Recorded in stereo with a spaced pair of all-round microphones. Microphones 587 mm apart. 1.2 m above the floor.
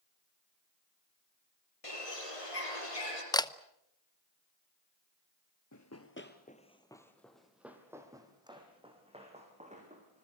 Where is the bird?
65° left (ahead or behind), 5 m.